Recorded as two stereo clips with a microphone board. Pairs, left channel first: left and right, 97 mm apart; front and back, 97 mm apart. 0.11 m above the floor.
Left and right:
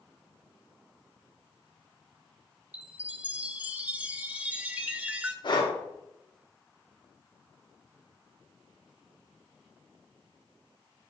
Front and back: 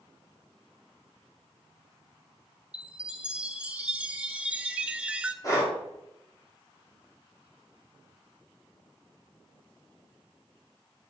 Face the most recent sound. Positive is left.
turn(degrees=55)